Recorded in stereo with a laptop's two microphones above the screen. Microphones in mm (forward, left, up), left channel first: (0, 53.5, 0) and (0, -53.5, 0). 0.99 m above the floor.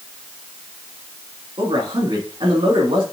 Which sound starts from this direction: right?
A man speaking, at 1.6 s.